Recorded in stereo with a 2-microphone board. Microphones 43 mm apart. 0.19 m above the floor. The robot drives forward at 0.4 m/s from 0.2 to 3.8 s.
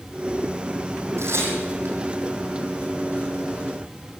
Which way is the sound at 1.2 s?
75° right (ahead or behind).